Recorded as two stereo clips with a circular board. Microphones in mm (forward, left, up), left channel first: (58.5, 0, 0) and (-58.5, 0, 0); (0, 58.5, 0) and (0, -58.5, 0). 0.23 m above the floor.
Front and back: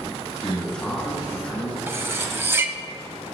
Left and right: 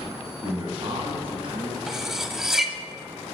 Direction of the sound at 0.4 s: 80° right.